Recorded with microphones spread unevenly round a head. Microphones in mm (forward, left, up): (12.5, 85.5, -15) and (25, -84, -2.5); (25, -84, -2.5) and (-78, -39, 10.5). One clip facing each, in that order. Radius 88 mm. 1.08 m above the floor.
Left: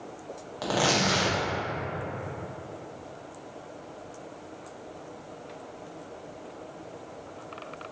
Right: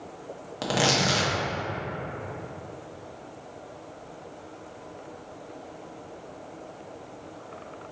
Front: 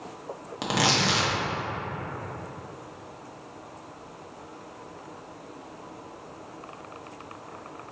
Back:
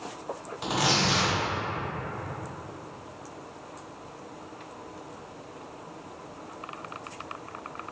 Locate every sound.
0.6 s tearing paper: 25° right, 0.7 m